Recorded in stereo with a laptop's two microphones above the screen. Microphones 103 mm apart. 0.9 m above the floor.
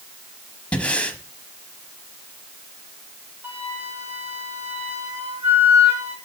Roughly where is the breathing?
Centre.